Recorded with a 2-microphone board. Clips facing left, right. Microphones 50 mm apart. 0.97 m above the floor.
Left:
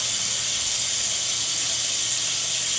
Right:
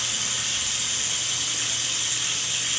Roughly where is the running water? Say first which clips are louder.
Right 1 dB; right.